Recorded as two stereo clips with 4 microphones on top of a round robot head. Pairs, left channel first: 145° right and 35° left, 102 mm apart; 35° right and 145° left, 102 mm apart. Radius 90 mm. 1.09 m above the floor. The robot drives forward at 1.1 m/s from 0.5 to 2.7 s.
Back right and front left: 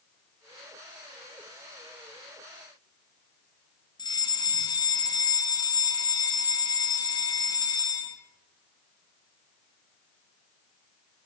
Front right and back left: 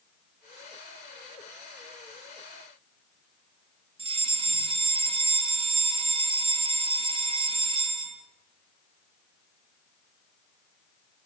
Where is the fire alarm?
170° left, 4 m.